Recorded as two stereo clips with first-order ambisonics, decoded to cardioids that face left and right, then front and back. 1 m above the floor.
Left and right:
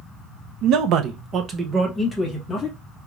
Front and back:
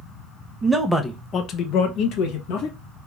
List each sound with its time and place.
0.6 s a man speaking: 100° right, 0.8 m; by 2.8 s 10° left, 1.2 m